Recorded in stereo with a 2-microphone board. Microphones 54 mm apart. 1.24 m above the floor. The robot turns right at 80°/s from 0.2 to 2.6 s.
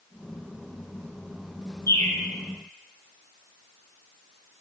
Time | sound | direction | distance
1.9 | a bird | 60° left (ahead or behind) | 2.5 m